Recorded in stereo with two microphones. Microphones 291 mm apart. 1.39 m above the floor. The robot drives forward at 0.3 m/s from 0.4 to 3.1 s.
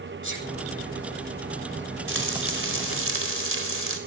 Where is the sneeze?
85° left, 8.5 m.